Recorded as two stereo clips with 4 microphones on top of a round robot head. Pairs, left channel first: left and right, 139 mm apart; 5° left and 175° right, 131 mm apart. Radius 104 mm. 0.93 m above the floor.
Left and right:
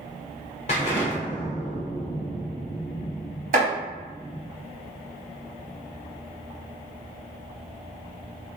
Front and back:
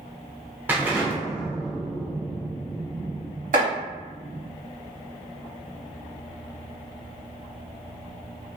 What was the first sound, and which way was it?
An explosion, 120° left.